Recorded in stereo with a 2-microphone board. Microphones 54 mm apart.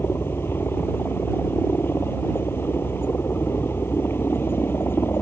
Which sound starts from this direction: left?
A helicopter, at 0.0 s.